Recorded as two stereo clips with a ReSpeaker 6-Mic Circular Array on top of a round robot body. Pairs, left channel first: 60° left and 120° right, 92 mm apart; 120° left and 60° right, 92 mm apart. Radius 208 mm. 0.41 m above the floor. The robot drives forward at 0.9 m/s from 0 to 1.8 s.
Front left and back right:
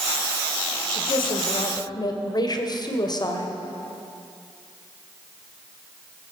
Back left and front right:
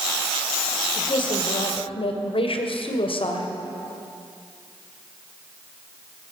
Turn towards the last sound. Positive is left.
turn(degrees=105)